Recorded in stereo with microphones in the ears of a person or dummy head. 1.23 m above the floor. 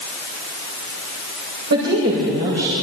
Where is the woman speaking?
60° right (ahead or behind), 6 m; by 2.7 s 50° right (ahead or behind), 6 m.